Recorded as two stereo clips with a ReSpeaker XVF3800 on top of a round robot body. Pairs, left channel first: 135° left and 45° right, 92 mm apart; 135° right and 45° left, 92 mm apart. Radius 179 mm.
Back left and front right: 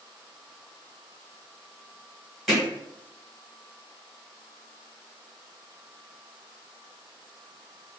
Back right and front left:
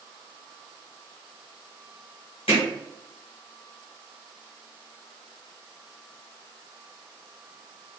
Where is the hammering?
135° right, 1.9 m.